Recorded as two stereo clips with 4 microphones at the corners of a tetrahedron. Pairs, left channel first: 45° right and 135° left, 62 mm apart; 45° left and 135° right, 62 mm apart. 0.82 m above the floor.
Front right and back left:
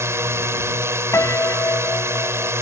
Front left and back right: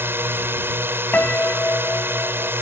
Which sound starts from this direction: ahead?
A piano, at 1.1 s.